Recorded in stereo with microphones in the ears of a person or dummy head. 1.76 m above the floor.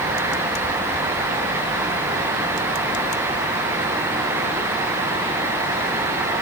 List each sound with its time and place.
Only background noise.